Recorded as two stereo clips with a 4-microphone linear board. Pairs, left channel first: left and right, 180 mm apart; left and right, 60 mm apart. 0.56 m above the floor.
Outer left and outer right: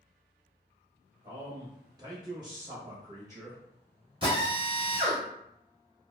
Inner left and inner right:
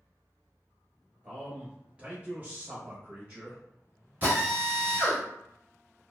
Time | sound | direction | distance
1.2 | a man speaking | 15° right (ahead or behind) | 1.4 m
4.2 | a drill | 30° right (ahead or behind) | 1.4 m